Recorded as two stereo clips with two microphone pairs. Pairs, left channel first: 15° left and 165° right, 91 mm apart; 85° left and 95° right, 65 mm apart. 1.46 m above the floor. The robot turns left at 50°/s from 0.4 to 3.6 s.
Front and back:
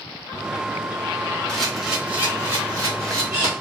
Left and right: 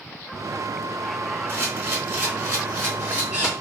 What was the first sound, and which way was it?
A camera shutter, 65° right.